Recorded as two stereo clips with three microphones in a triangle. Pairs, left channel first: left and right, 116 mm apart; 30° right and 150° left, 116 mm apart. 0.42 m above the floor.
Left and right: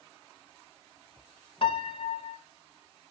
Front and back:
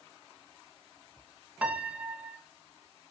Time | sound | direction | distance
1.6 | a piano | 75° left | 0.8 m